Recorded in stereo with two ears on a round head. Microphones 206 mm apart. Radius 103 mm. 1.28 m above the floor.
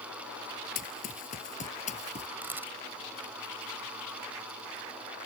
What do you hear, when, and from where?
0.8 s running footsteps: 40° left (ahead or behind); by 2.3 s 30° left (ahead or behind)
2.4 s a camera shutter: 10° right (ahead or behind)